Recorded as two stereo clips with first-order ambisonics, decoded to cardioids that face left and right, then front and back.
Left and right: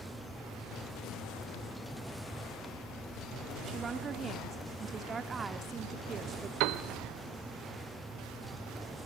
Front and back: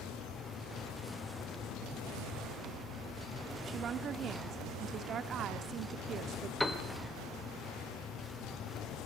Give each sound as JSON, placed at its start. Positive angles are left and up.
{"t": 3.7, "sound": "a woman speaking", "azimuth_deg": -150, "distance_m": 1.2}
{"t": 6.6, "sound": "a piano", "azimuth_deg": -85, "distance_m": 1.5}